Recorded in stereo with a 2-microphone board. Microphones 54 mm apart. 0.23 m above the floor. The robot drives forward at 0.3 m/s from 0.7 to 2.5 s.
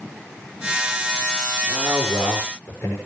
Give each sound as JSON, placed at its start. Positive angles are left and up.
{"t": 1.7, "sound": "a man speaking", "side_deg": 30, "distance_m": 5.0}